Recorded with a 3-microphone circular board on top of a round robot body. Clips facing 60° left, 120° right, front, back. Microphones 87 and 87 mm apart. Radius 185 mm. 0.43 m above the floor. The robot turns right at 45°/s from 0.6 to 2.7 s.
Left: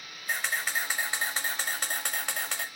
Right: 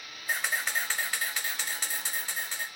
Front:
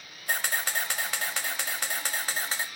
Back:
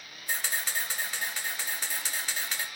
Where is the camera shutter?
30° right, 0.6 m; by 2.6 s 60° left, 0.6 m.